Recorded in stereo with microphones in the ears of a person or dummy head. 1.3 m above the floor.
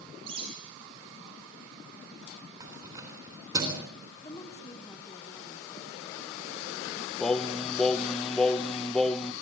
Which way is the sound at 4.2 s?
15° left (ahead or behind).